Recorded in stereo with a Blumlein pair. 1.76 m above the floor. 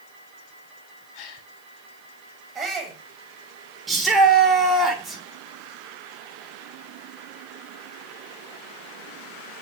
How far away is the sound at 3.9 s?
About 6 m.